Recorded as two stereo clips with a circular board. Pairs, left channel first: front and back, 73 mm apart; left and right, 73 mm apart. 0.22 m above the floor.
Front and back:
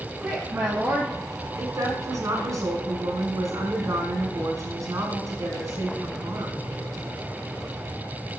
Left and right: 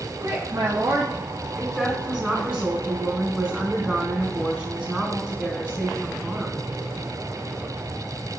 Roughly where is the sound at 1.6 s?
Behind.